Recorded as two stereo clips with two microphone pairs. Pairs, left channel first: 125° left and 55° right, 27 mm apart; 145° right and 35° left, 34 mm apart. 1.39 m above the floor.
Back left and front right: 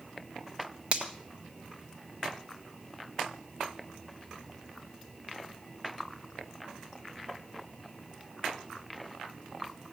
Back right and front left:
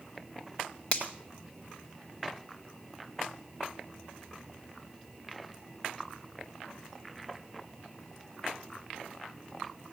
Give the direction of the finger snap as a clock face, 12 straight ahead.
3 o'clock.